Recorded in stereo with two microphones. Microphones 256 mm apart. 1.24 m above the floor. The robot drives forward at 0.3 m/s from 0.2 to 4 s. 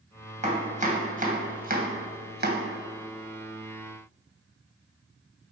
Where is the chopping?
25° right (ahead or behind), 1.6 m; by 2.6 s 40° right (ahead or behind), 1.1 m.